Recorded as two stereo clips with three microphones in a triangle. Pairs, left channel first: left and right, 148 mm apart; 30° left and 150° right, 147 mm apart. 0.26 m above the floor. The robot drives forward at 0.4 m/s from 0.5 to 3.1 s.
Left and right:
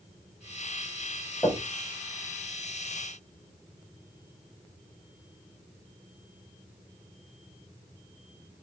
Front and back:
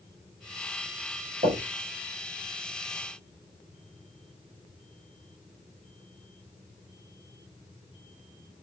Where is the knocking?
175° right, 5 m.